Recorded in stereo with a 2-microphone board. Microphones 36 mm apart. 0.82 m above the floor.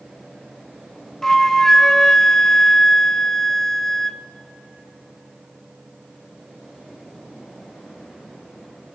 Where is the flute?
15° left (ahead or behind), 0.6 m.